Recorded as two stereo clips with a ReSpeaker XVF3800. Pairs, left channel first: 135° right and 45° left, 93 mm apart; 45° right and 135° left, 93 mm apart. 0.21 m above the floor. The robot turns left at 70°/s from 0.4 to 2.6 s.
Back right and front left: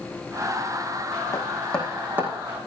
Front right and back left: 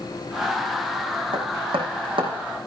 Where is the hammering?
175° left, 5.5 m; by 2.3 s 105° left, 5.5 m.